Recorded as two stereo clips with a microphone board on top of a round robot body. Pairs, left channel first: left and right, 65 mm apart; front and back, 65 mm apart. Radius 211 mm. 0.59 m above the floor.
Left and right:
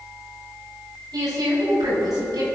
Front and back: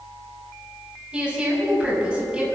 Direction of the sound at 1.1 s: 105° right.